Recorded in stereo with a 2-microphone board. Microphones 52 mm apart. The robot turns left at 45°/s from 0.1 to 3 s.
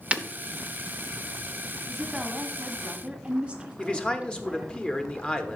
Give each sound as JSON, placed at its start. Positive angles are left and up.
{"t": 0.1, "sound": "breaking glass", "side_deg": -25, "distance_m": 0.5}
{"t": 1.9, "sound": "a woman speaking", "side_deg": -5, "distance_m": 1.2}
{"t": 3.8, "sound": "a man speaking", "side_deg": 15, "distance_m": 0.8}